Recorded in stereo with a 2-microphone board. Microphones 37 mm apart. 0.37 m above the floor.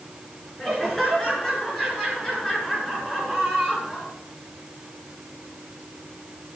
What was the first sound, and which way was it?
Laughter, 15° left (ahead or behind).